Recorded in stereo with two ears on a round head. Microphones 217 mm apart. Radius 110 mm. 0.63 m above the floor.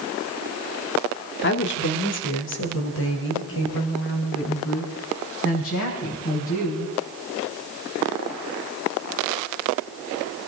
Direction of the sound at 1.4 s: 45° left (ahead or behind).